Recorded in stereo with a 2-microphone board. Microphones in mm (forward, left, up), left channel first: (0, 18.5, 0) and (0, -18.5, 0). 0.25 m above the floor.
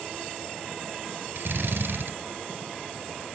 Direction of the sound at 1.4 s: 70° right (ahead or behind).